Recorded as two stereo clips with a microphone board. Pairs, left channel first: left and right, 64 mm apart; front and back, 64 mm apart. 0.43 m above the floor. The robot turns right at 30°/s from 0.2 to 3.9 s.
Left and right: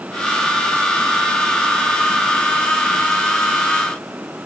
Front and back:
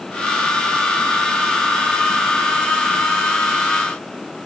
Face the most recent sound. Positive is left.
No sound to turn to.